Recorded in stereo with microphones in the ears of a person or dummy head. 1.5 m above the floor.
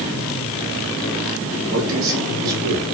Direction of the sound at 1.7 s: 75° right (ahead or behind).